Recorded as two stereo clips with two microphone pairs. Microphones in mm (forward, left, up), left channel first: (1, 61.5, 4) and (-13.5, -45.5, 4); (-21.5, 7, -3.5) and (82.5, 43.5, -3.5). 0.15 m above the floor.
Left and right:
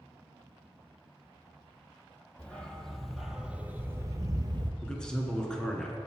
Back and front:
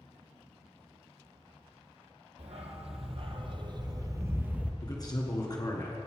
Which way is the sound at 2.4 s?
5° left.